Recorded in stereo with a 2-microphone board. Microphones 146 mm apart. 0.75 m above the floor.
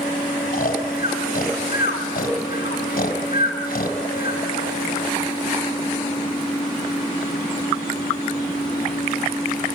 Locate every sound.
0.5 s snoring: 75° left (ahead or behind), 1.7 m